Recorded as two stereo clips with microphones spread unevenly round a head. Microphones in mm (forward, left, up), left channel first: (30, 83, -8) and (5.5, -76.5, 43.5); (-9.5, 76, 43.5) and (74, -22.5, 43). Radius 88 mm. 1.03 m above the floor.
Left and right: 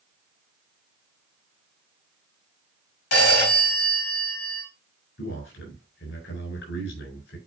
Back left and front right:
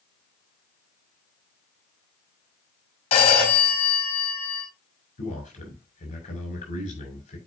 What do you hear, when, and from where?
3.1 s a phone ringing: 85° left, 6 m
5.2 s a man speaking: 95° left, 7 m